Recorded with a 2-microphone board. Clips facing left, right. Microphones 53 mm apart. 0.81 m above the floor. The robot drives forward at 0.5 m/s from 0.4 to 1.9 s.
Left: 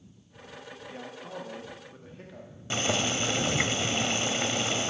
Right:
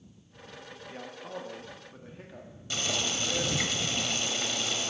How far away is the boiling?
About 0.7 m.